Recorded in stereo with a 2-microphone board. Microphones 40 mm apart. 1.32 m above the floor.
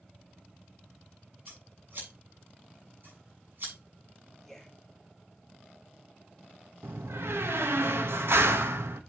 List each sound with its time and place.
1.5 s scissors: 55° right (ahead or behind), 7 m
4.4 s a man speaking: centre (ahead or behind), 2.5 m
6.8 s a door slam: 75° right (ahead or behind), 1.2 m